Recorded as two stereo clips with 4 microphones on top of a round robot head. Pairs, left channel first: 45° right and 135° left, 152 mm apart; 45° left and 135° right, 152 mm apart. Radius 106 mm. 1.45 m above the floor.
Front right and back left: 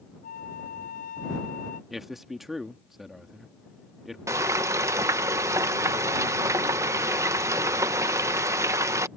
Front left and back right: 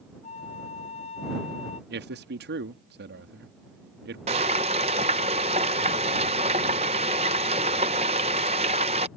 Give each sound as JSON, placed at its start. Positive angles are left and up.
{"t": 0.2, "sound": "a flute", "azimuth_deg": -5}
{"t": 1.9, "sound": "a man speaking", "azimuth_deg": -135}
{"t": 4.3, "sound": "frying", "azimuth_deg": -160}